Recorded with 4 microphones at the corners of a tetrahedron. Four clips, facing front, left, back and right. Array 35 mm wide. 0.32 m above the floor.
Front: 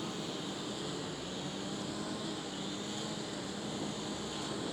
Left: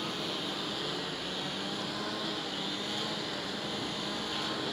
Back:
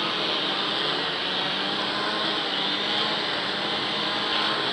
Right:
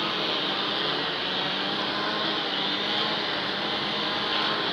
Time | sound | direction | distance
0.0 | a lawn mower | 145° right | ?